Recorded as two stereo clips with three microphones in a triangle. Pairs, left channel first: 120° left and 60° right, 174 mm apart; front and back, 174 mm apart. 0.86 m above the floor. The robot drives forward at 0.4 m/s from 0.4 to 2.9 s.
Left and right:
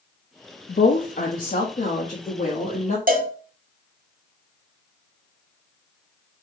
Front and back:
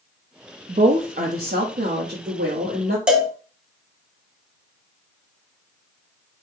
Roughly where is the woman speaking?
Behind left.